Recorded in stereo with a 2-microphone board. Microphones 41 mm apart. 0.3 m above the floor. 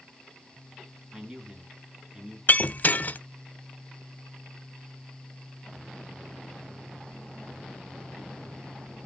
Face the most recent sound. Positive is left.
turn(degrees=40)  # may be behind; listen again after turning